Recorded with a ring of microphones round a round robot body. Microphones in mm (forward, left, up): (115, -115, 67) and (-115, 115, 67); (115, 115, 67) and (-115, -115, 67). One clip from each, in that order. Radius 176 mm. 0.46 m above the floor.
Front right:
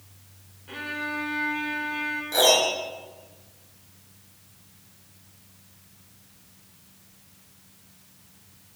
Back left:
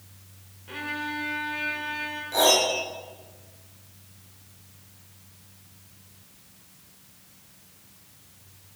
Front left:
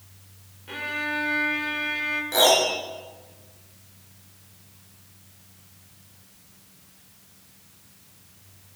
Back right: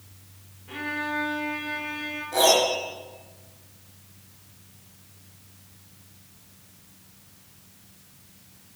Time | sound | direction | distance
0.7 | a violin | 40° left | 2 m
2.3 | a piano | 25° left | 4 m